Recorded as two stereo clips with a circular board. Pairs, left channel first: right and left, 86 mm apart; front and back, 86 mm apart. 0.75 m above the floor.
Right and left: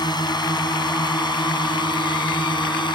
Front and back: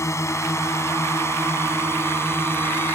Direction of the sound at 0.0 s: 55° right.